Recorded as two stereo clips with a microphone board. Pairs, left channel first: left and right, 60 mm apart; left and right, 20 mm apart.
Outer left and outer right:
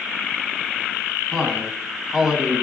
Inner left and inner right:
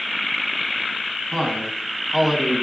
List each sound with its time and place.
1.3 s a man speaking: 5° left (ahead or behind), 2.5 m; by 2.6 s 15° right (ahead or behind), 2 m